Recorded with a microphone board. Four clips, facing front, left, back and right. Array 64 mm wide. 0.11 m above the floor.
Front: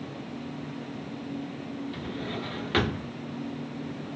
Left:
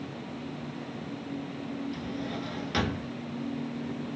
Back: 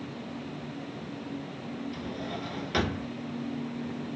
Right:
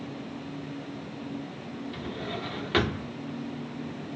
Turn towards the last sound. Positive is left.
turn(degrees=-50)